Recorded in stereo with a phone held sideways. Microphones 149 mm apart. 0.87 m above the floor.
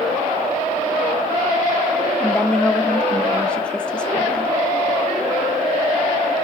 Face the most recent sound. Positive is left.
turn(degrees=5)  # may be behind; listen again after turning